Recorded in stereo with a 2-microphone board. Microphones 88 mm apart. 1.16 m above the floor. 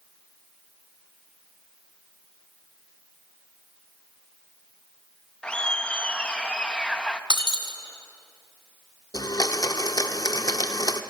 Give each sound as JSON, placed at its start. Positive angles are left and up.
{"t": 5.4, "sound": "laughter", "side_deg": 10, "distance_m": 1.3}
{"t": 7.3, "sound": "breaking glass", "side_deg": -60, "distance_m": 1.9}
{"t": 9.1, "sound": "a blender", "side_deg": 45, "distance_m": 0.9}